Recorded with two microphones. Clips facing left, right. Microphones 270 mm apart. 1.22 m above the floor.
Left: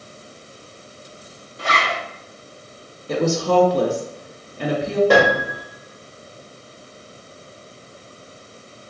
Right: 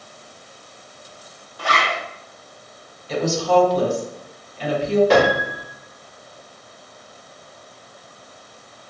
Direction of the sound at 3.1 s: 60° left (ahead or behind).